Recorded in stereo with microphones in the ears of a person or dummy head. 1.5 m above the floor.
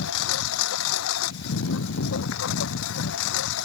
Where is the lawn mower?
75° left (ahead or behind); by 3.7 s 70° left (ahead or behind).